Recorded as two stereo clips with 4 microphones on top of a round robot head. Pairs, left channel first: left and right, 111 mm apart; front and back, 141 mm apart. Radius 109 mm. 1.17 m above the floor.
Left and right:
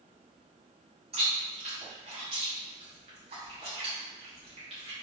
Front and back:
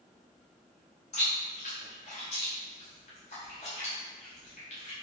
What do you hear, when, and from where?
1.1 s chewing: 50° right, 0.7 m